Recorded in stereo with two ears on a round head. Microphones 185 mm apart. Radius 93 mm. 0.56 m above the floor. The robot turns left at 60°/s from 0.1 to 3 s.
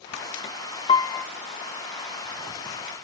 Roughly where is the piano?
Left.